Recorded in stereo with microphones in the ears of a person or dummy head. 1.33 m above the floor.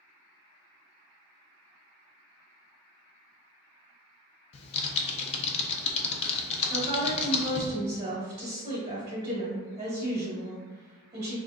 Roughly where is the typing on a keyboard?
Left.